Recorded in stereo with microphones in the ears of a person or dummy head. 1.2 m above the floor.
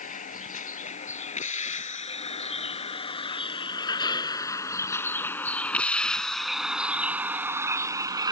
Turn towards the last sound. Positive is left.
turn(degrees=-20)  # may be behind; listen again after turning